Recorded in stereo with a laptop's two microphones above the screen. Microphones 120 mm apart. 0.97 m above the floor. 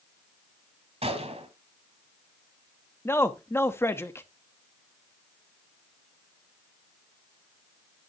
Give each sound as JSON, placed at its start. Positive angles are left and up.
{"t": 1.0, "sound": "a gunshot", "side_deg": -55, "distance_m": 1.2}
{"t": 3.0, "sound": "a man speaking", "side_deg": 20, "distance_m": 1.1}